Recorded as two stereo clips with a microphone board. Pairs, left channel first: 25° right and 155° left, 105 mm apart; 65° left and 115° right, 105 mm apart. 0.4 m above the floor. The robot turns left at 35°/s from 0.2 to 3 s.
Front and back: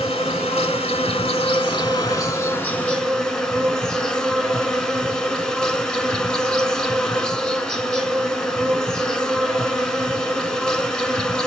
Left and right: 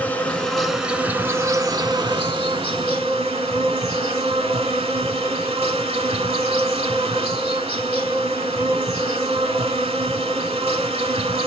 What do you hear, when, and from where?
0.0 s an insect: 5° right, 0.9 m; by 11.5 s 105° right, 0.9 m